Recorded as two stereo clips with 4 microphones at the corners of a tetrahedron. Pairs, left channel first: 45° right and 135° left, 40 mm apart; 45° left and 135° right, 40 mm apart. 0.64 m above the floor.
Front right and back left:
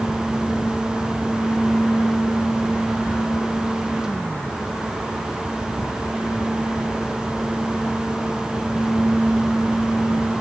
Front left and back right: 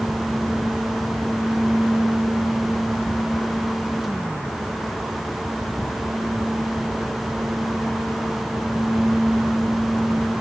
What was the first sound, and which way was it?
Only background noise.